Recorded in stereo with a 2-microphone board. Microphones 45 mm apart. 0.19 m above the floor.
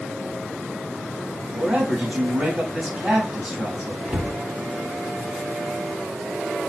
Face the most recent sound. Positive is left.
turn(degrees=-25)  # may be behind; listen again after turning